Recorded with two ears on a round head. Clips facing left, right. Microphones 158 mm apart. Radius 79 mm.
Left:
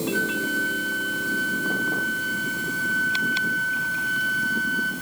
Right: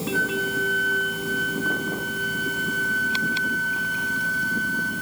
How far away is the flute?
About 5.5 m.